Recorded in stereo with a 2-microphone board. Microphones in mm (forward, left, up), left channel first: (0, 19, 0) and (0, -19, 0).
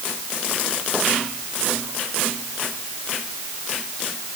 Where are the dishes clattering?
I don't hear dishes clattering.